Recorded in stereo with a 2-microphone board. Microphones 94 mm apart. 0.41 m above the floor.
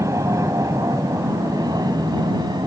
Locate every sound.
0.0 s an aircraft: 35° right (ahead or behind); by 2.7 s 50° right (ahead or behind)